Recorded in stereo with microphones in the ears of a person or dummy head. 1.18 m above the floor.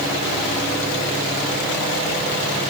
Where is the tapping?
I don't hear tapping.